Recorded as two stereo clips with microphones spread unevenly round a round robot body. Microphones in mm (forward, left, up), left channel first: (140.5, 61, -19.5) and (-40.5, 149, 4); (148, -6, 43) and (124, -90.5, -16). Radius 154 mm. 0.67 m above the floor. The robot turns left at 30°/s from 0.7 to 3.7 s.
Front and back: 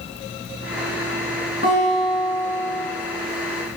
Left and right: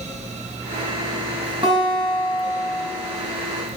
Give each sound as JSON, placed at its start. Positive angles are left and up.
{"t": 1.6, "sound": "a guitar", "azimuth_deg": -85, "distance_m": 6.5}